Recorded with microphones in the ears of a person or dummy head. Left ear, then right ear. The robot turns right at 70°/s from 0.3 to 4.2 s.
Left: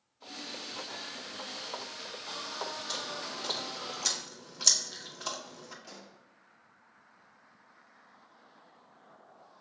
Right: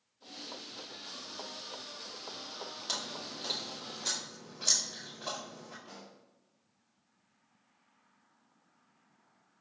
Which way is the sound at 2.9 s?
30° right (ahead or behind).